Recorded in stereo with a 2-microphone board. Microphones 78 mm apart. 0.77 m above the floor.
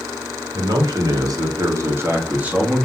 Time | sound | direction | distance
0.5 | a man speaking | 60° right (ahead or behind) | 1.7 m